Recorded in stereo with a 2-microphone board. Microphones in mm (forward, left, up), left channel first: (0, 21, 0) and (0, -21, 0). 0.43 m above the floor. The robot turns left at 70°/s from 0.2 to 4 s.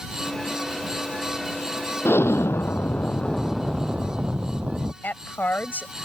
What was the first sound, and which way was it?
An explosion, 110° left.